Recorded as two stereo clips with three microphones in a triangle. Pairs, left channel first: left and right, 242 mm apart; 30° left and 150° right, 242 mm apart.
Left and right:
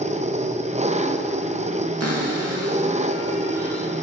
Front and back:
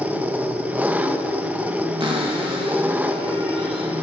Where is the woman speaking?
I don't hear a woman speaking.